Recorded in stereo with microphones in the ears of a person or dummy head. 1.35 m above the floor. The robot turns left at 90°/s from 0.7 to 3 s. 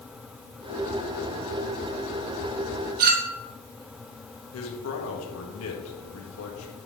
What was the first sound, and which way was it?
A clink, 50° right (ahead or behind).